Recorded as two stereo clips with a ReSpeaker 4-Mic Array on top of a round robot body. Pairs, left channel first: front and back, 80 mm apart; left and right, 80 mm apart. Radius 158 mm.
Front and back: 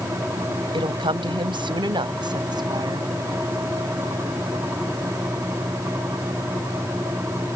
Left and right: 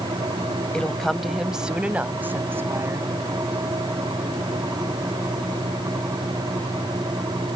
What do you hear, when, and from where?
0.7 s a woman speaking: 170° left; by 3.1 s 145° right